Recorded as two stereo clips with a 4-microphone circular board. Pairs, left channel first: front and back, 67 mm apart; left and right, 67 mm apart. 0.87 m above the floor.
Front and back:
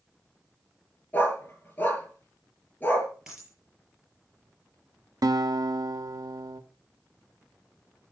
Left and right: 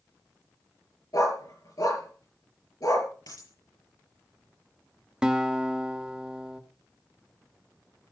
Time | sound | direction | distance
1.1 | a dog barking | 65° left | 5 m
3.3 | a dropped coin | 100° left | 7 m
5.2 | a guitar | 165° right | 1.0 m